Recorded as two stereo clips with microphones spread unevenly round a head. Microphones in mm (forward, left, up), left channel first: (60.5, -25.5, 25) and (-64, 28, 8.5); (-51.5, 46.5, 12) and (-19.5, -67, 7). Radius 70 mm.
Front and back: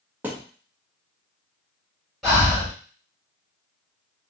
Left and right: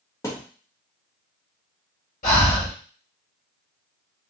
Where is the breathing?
70° left, 1.5 m.